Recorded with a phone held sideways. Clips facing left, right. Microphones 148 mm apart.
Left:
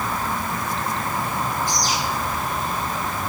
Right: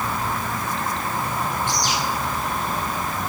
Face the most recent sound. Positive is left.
turn(degrees=35)  # may be behind; listen again after turning